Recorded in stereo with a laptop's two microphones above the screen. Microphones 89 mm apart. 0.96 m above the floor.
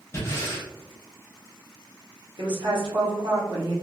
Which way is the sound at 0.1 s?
35° left (ahead or behind).